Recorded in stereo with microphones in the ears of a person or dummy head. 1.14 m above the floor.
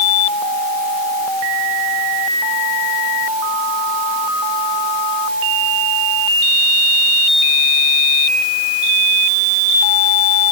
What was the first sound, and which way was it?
Only background noise.